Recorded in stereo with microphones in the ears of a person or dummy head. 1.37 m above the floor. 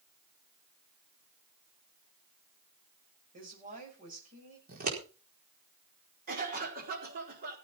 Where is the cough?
45° right (ahead or behind), 4.5 m.